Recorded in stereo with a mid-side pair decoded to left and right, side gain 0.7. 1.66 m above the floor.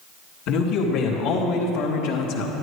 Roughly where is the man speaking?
Ahead left.